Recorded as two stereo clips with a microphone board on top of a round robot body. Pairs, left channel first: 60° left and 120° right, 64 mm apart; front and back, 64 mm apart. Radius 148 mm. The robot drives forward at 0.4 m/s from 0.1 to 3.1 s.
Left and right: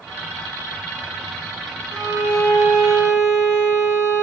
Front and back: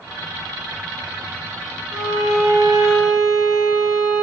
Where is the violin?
165° right, 2 m.